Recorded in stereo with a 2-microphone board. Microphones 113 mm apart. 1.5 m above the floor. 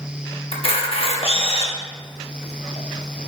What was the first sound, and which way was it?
A camera shutter, 55° left (ahead or behind).